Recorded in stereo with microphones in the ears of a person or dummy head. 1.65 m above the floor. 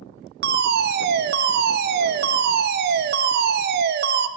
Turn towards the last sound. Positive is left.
turn(degrees=-50)  # may be behind; listen again after turning